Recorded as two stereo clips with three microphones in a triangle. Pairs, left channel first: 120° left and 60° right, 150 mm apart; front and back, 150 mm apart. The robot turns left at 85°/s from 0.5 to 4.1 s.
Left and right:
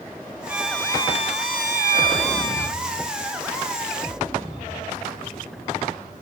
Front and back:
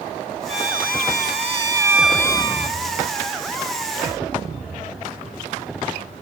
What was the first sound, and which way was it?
A violin, 135° right.